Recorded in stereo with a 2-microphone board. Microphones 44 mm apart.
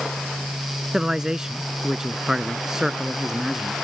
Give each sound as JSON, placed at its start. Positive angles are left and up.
{"t": 0.9, "sound": "a man speaking", "side_deg": -15}